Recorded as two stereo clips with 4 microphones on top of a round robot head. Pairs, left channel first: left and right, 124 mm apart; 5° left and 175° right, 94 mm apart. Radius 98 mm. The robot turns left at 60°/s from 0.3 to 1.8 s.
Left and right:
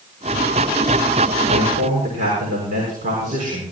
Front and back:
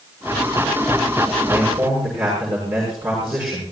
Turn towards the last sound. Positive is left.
turn(degrees=-100)